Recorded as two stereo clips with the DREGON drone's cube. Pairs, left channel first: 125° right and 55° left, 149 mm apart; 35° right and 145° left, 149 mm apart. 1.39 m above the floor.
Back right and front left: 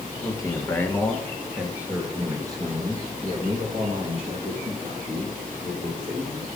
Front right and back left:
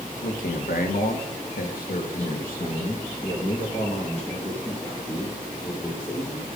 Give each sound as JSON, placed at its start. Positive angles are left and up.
{"t": 0.2, "sound": "a man speaking", "azimuth_deg": -60, "distance_m": 1.3}